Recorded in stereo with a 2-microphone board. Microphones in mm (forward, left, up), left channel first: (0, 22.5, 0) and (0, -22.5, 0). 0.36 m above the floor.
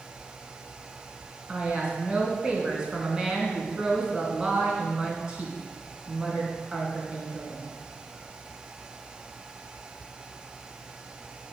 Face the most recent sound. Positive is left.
turn(degrees=-20)  # may be behind; listen again after turning